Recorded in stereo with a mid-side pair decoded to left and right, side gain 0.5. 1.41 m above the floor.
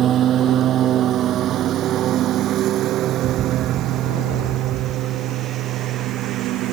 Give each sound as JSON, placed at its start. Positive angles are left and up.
{"t": 0.0, "sound": "a lawn mower", "azimuth_deg": -55}
{"t": 3.2, "sound": "a bird", "azimuth_deg": -55}